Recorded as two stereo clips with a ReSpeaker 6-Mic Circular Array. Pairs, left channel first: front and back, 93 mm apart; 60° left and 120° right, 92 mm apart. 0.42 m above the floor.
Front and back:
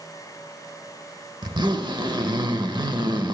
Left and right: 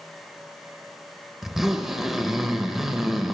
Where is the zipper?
155° left, 0.8 m.